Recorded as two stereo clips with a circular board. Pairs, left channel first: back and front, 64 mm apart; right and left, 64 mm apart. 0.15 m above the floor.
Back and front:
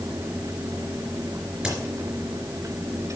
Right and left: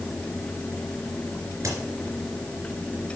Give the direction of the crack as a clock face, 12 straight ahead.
10 o'clock.